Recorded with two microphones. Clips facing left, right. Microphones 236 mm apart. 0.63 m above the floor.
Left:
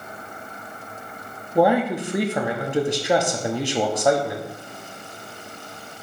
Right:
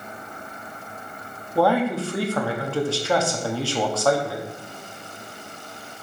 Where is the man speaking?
20° left (ahead or behind), 0.5 m.